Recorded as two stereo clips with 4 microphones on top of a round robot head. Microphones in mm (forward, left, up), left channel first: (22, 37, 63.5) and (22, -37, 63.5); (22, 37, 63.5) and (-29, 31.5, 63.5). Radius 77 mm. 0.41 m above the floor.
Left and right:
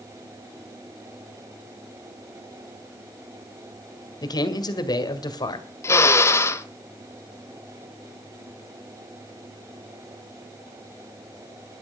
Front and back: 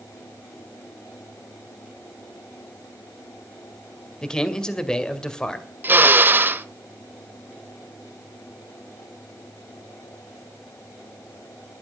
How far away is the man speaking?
About 2 m.